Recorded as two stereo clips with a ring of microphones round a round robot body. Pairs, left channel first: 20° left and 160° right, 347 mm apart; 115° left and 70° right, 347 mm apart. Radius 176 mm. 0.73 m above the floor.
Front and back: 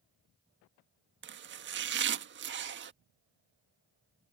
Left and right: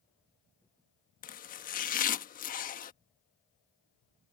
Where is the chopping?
165° left.